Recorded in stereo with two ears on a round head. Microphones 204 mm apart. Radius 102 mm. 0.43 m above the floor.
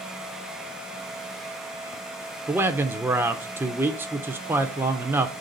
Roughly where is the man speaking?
Centre.